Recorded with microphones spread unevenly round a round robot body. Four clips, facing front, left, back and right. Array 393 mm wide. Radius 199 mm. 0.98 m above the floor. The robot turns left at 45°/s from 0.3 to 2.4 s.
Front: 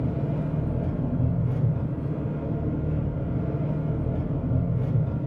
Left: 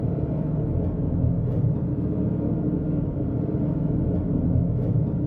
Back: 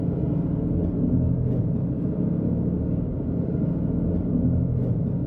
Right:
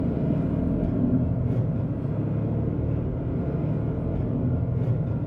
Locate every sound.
0.0 s an engine running: 120° right, 5 m; by 5.3 s 145° left, 5 m